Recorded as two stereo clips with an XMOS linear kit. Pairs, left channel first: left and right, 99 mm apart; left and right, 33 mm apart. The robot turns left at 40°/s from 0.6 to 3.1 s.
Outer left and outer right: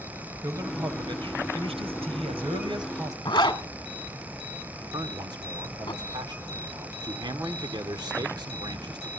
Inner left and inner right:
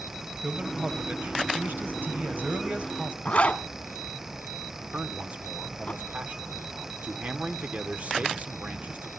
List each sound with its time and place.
0.4 s a man speaking: 40° right, 2.5 m; by 3.1 s 140° right, 2.5 m
3.2 s a zipper: 45° left (ahead or behind), 1.6 m
4.9 s a man speaking: 45° right (ahead or behind), 1.7 m